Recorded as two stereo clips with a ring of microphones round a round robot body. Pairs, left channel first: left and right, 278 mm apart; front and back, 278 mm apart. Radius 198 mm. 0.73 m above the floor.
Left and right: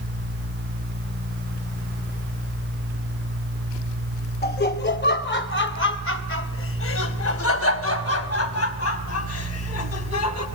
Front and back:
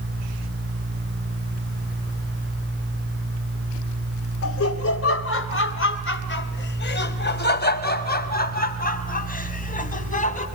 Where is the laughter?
35° left, 3 m; by 10.4 s 65° left, 6 m.